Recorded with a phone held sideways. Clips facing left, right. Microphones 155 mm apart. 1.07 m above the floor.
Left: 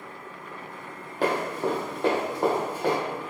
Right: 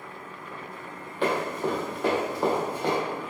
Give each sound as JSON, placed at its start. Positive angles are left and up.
{"t": 1.2, "sound": "running footsteps", "side_deg": 40, "distance_m": 1.6}